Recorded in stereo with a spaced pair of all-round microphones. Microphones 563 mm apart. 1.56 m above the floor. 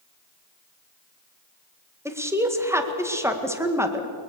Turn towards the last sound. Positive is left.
turn(degrees=-5)  # may be behind; listen again after turning